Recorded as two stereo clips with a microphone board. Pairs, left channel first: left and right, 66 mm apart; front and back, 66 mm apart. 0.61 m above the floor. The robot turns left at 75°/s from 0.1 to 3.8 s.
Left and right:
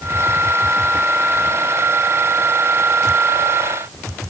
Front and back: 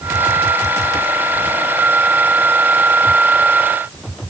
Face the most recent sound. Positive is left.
No sound to turn to.